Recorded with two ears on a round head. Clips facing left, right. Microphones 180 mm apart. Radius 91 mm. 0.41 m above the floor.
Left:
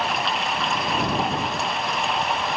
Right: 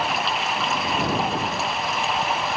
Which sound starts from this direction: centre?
Running water, at 0.0 s.